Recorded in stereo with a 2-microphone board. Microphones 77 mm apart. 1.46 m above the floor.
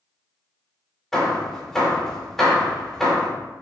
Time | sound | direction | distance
1.1 | hammering | 5° left (ahead or behind) | 2.5 m